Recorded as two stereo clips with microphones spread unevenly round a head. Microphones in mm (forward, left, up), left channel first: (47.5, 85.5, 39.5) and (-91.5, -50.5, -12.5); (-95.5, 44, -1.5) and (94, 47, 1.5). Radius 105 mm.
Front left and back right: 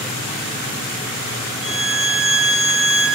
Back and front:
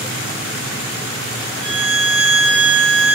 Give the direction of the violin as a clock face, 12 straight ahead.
1 o'clock.